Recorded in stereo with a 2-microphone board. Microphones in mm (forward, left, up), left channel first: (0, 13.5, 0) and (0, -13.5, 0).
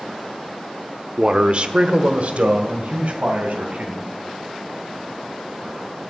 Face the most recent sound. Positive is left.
turn(degrees=-60)  # may be behind; listen again after turning